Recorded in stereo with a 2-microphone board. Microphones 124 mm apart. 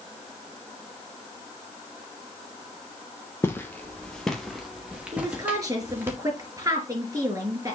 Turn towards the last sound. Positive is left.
turn(degrees=-25)  # may be behind; listen again after turning